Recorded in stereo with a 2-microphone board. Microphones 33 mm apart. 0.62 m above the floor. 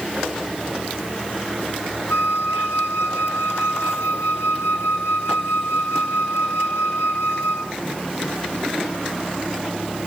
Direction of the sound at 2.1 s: 70° left (ahead or behind).